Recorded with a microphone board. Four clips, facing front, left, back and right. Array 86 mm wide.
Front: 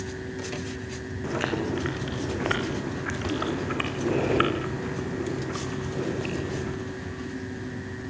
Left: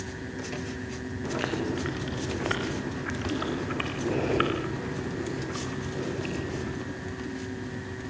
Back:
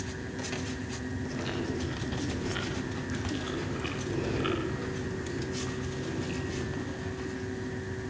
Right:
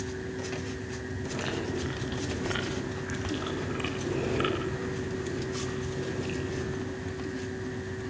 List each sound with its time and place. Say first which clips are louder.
1.2 s chewing: left 4 dB, front 8 dB; 20° left, 6 m